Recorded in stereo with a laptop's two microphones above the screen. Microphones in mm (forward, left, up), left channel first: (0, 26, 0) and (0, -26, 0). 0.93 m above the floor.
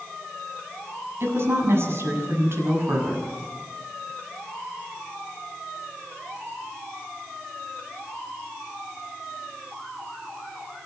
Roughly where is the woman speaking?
Right.